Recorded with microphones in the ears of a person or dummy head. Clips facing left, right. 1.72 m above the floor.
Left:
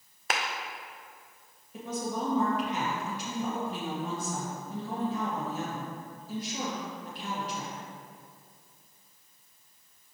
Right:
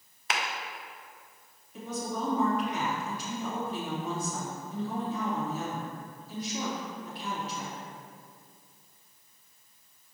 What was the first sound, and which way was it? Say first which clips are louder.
A clap: left 1 dB; 45° left (ahead or behind).